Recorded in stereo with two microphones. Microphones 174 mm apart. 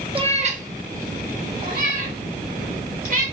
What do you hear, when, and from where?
0.1 s a cat meowing: 30° right (ahead or behind), 0.5 m; by 3.2 s 60° right (ahead or behind), 2.5 m